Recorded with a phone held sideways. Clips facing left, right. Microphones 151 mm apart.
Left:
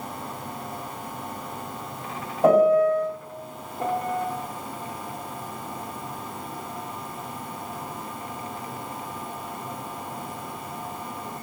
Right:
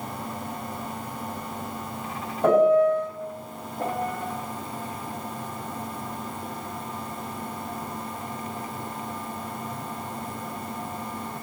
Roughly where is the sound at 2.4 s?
Centre.